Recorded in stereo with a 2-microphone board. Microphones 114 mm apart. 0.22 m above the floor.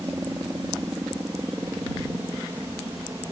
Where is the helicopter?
25° right (ahead or behind); by 3.3 s 20° right (ahead or behind).